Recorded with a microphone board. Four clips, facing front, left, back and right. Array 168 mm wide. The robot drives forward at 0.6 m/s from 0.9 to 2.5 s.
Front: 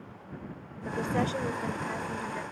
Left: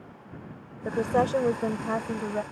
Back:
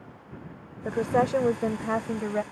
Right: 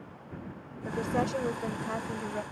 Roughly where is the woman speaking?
Behind left.